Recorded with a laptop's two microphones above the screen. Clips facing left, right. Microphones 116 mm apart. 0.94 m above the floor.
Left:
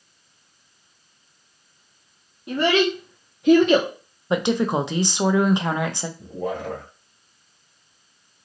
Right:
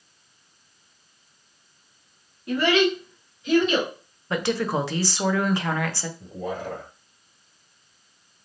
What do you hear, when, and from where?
2.5 s a child speaking: 20° left (ahead or behind), 0.8 m; by 3.9 s 55° left (ahead or behind), 0.7 m
4.3 s a woman speaking: 20° left (ahead or behind), 0.5 m
6.2 s a man speaking: 70° left (ahead or behind), 1.6 m